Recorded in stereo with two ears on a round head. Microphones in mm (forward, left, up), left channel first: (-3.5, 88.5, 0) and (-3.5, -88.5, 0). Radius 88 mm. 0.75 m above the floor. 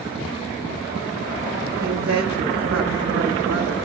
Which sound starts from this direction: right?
A woman speaking, at 1.8 s.